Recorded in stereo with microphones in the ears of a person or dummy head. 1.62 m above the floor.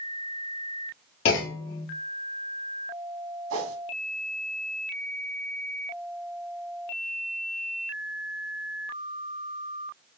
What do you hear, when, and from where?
1.2 s a clunk: 50° left (ahead or behind), 1.5 m
3.5 s a whoosh: 85° right, 2.5 m